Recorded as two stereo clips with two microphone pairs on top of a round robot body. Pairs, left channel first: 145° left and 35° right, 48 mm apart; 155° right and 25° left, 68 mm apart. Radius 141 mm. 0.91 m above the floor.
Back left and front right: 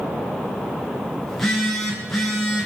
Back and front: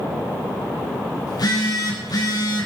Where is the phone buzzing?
130° right, 7 m.